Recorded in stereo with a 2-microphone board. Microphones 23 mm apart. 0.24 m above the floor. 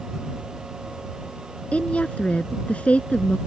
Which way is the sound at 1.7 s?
70° left (ahead or behind).